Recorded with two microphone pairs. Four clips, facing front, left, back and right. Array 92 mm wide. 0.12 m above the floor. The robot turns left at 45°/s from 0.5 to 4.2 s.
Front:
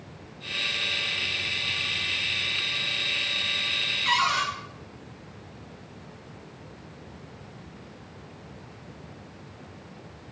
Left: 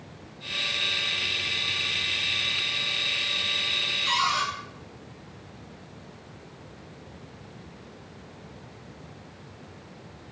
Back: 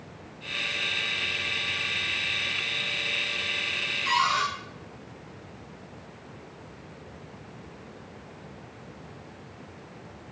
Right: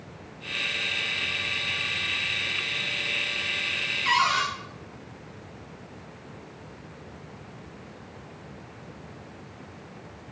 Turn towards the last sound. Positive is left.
turn(degrees=-80)